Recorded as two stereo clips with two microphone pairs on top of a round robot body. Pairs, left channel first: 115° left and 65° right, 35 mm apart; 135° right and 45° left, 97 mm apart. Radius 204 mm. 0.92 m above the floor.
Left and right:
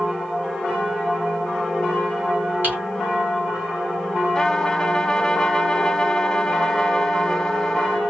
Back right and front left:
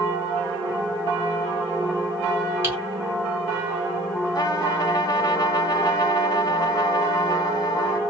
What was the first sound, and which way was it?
Typing on a keyboard, 25° right.